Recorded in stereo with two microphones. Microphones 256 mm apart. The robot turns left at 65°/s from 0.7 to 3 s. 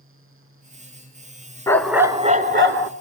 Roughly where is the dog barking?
Ahead.